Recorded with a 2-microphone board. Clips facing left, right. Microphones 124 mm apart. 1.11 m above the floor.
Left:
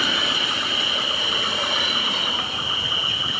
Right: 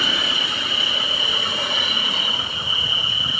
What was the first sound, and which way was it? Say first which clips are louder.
An insect: left 1 dB; 75° left (ahead or behind).